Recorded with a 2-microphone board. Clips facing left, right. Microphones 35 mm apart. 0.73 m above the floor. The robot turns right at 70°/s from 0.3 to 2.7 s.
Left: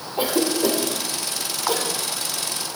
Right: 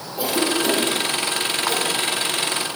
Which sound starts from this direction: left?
A cough, at 0.2 s.